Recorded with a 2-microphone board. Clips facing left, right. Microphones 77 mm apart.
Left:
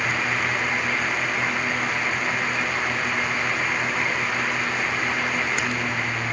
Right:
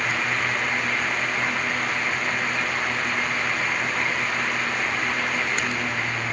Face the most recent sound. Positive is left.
No sound to turn to.